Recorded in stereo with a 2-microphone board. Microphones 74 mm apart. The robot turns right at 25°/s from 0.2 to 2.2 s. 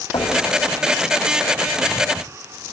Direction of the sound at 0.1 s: 85° left.